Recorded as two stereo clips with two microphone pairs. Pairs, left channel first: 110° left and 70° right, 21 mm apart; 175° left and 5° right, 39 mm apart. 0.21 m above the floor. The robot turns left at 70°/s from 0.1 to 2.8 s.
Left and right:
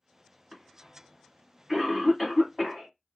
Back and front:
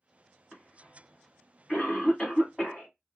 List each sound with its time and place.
0.5 s a cough: 85° right, 1.8 m; by 2.9 s 115° left, 1.8 m